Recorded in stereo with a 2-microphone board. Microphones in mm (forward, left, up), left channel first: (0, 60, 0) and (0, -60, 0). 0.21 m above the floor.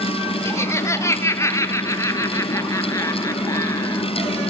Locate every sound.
0.5 s laughter: 25° left (ahead or behind), 1.6 m; by 4.0 s 30° left (ahead or behind), 3.5 m